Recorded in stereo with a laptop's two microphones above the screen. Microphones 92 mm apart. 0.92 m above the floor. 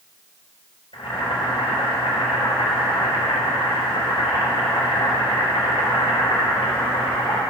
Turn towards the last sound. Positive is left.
turn(degrees=75)  # may be behind; listen again after turning